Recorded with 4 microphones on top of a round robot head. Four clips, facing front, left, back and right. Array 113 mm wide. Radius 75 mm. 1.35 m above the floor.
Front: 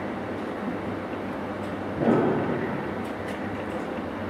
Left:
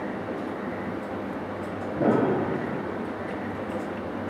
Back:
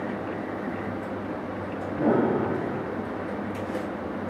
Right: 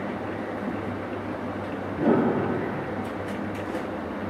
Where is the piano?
90° left, 1.8 m.